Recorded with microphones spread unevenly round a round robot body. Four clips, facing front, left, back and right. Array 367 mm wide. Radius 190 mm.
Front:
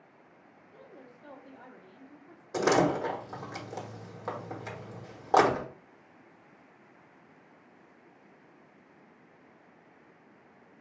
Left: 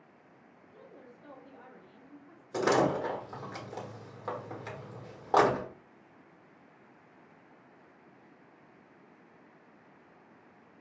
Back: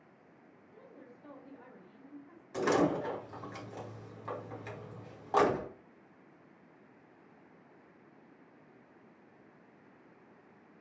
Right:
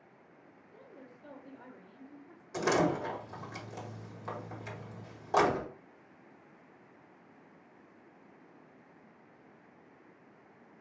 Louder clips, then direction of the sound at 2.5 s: Left 2 dB, front 4 dB; 25° left.